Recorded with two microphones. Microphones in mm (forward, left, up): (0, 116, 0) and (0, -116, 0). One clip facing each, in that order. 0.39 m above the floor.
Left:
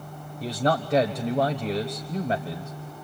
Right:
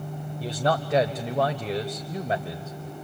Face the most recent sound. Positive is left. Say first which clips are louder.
# left 1 dB
turn(degrees=-5)  # may be behind; listen again after turning